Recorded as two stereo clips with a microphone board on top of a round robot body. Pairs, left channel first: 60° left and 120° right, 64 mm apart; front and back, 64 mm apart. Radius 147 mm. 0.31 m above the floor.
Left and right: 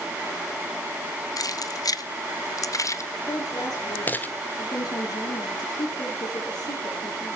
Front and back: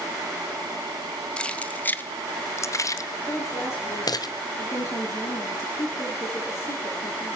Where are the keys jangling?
75° left, 1.8 m; by 4.3 s 5° right, 2.0 m.